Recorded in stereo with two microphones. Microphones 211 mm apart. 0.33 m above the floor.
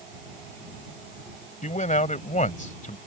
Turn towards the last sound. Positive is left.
turn(degrees=40)  # may be behind; listen again after turning